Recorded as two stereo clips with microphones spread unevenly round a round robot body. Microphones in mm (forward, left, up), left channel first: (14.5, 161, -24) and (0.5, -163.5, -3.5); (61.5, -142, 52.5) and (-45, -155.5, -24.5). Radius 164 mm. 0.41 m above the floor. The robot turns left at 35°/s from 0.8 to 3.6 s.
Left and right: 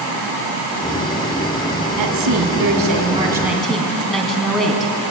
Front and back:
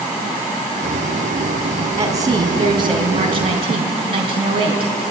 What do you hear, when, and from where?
2.0 s a woman speaking: 125° right, 3 m; by 4.9 s 175° left, 3 m